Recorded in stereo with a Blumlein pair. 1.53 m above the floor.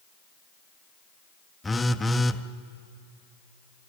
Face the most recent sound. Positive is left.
turn(degrees=5)